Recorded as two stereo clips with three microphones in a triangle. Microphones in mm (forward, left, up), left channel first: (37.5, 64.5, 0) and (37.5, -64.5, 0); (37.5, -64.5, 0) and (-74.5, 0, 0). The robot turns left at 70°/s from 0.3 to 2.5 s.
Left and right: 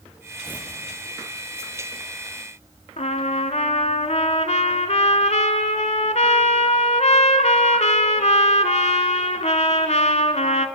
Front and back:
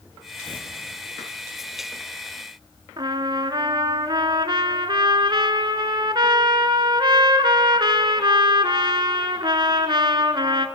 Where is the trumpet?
100° left, 0.9 m.